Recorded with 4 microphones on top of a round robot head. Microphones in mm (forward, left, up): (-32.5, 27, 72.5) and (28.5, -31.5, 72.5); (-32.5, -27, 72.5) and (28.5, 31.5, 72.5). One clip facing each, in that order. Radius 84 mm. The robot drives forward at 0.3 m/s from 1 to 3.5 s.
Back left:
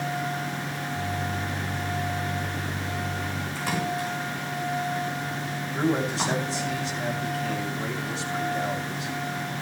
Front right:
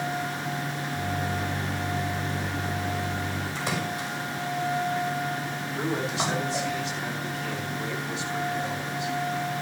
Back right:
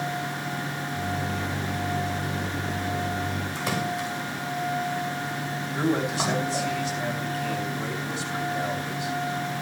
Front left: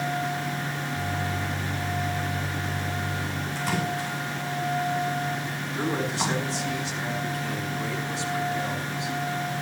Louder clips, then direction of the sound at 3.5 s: Back left 4 dB, front left 1 dB; 115° right.